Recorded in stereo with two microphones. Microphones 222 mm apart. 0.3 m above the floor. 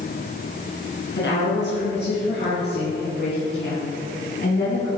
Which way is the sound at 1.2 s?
55° left (ahead or behind).